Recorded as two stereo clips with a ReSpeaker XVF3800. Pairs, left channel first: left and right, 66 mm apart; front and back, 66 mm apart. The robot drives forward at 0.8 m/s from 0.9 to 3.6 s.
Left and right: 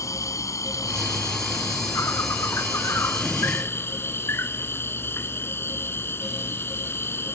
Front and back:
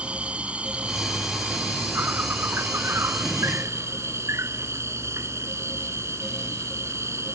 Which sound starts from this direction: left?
An insect, at 0.0 s.